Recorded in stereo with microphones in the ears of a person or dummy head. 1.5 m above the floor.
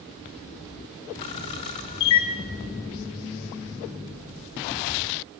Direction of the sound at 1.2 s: 25° left (ahead or behind).